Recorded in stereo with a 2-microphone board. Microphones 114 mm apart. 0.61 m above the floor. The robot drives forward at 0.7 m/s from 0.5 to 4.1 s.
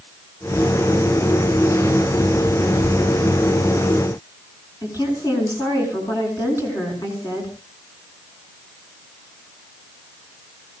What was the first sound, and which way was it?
A woman speaking, 30° left (ahead or behind).